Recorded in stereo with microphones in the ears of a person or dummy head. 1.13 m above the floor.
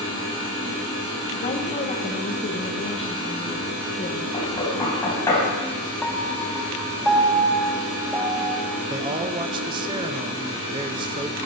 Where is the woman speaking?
35° left (ahead or behind), 1.1 m.